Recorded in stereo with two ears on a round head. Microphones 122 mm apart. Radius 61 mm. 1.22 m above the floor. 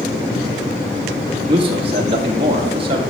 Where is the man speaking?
40° right (ahead or behind), 1.8 m.